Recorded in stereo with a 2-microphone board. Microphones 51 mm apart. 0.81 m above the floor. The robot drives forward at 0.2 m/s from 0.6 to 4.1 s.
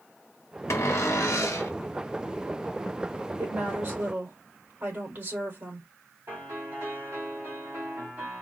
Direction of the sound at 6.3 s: 45° right (ahead or behind).